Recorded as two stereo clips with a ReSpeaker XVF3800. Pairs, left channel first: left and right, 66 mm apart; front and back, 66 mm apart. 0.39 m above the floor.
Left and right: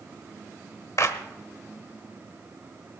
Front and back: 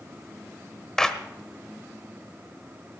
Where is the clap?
80° left, 1.1 m.